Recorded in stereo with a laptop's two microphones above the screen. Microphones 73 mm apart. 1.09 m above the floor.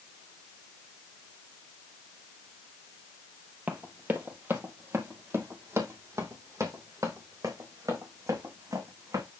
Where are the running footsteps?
20° right (ahead or behind), 1.6 m; by 9.2 s 55° right (ahead or behind), 4.5 m.